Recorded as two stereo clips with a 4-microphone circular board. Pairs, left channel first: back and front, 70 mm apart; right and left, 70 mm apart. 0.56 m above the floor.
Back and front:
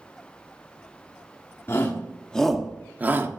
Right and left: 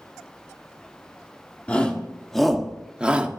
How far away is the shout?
About 1.3 m.